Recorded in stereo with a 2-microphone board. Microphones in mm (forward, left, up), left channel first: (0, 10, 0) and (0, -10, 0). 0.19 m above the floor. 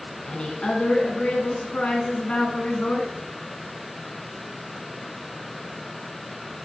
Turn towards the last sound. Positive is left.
turn(degrees=45)  # may be behind; listen again after turning